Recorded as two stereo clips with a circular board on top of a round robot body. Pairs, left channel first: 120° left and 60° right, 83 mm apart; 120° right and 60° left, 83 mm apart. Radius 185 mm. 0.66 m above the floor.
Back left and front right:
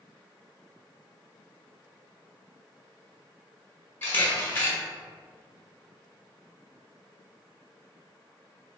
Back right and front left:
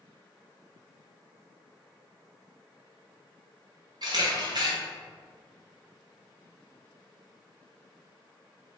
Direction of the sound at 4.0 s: 60° left.